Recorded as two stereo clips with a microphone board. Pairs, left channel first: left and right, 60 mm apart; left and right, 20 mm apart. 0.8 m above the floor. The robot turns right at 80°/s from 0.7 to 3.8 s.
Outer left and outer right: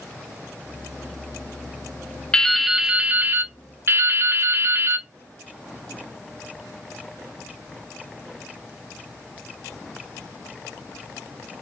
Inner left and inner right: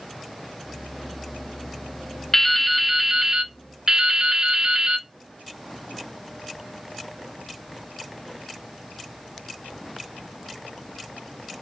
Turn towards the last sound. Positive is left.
turn(degrees=-85)